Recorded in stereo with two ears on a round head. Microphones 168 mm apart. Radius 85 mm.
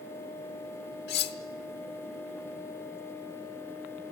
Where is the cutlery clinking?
55° left (ahead or behind), 1.0 m.